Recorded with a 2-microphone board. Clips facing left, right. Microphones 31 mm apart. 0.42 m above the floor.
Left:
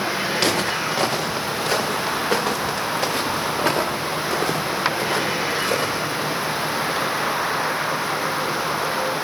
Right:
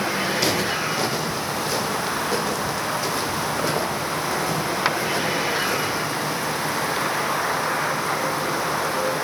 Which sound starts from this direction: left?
Footsteps, at 0.3 s.